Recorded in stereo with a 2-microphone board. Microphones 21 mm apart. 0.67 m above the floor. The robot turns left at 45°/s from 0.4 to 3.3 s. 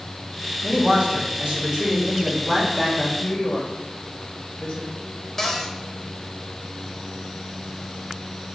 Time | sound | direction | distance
0.6 | a man speaking | 95° right | 3 m
3.2 | a woman speaking | 65° left (ahead or behind) | 2.5 m
5.4 | a cupboard door | 20° left (ahead or behind) | 0.9 m